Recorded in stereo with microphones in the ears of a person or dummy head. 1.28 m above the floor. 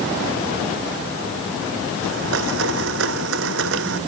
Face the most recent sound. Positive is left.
turn(degrees=-65)  # may be behind; listen again after turning